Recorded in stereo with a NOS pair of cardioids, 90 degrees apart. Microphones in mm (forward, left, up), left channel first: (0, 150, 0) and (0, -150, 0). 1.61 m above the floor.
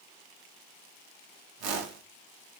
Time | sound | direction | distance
1.6 | a whoosh | 55° right | 0.8 m